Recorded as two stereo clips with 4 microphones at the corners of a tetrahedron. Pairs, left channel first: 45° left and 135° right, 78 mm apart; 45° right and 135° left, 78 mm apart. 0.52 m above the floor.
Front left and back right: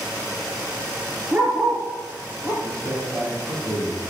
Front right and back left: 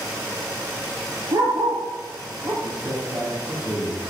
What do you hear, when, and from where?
1.3 s a dog barking: 165° left, 3 m; by 2.5 s 175° right, 4.5 m
2.6 s a man speaking: 175° right, 4.5 m